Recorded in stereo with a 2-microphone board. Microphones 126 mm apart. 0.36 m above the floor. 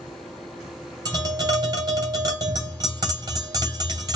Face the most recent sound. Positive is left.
turn(degrees=-30)  # may be behind; listen again after turning